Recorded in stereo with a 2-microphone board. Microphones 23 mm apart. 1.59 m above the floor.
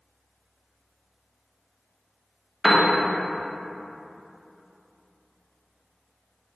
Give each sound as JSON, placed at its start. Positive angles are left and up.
{"t": 2.6, "sound": "a piano", "side_deg": 0, "distance_m": 0.7}